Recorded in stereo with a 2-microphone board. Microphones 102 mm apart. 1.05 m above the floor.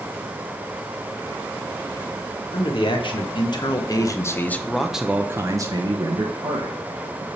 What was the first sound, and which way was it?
A man speaking, 60° left (ahead or behind).